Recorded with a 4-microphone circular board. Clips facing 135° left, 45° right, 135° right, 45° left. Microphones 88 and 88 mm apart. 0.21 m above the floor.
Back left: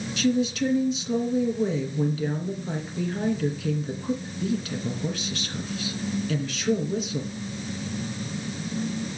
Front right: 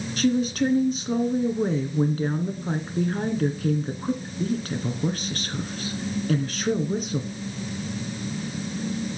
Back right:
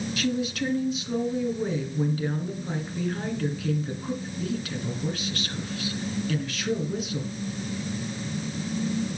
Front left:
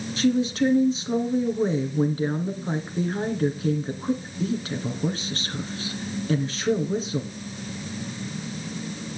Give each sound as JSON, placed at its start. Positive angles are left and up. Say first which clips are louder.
{"t": 0.2, "sound": "a woman speaking", "louder": "front right 1 dB, front left 8 dB", "azimuth_deg": -10, "distance_m": 2.5}